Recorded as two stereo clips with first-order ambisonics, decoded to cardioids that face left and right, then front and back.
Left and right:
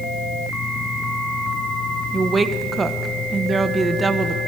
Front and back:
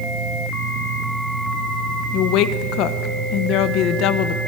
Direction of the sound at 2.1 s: 15° right.